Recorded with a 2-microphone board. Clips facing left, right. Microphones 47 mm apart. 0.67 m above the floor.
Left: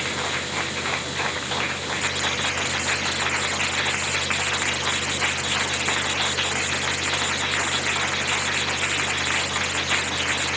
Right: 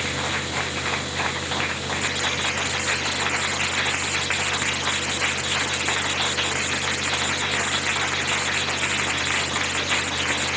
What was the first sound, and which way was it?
Only background noise.